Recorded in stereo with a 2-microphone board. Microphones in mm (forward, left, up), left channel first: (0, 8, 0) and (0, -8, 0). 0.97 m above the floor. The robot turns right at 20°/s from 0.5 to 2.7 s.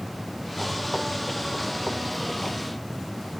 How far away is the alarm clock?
I don't hear an alarm clock.